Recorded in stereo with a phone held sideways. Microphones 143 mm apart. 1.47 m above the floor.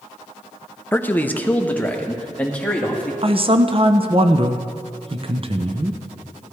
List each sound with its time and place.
0.9 s a man speaking: 15° left (ahead or behind), 0.6 m; by 3.1 s 10° left (ahead or behind), 2.5 m
3.2 s a man speaking: 40° right (ahead or behind), 0.8 m